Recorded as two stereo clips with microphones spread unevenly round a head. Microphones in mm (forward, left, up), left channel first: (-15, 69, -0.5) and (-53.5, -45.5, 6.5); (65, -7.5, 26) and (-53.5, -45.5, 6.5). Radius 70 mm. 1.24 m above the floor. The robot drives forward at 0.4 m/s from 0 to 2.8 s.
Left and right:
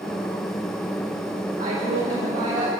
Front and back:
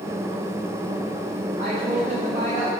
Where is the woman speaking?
130° right, 7.5 m.